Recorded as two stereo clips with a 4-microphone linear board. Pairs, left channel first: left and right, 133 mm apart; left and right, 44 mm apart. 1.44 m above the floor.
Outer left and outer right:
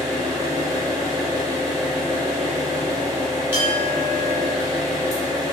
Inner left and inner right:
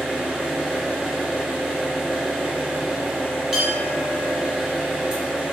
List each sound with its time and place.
0.0 s an engine running: 25° right (ahead or behind), 1.2 m
3.5 s a clink: 15° right (ahead or behind), 1.3 m